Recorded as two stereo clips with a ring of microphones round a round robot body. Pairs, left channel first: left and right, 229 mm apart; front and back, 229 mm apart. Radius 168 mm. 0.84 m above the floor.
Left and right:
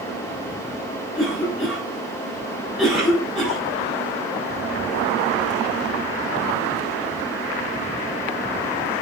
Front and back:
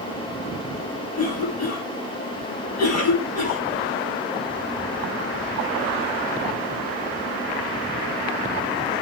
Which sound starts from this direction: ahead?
A cough, at 1.1 s.